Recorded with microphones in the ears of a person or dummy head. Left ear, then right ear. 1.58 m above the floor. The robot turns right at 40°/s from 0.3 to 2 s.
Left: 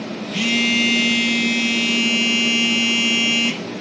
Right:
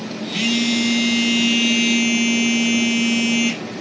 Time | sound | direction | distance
0.3 | a phone buzzing | 10° left (ahead or behind) | 0.9 m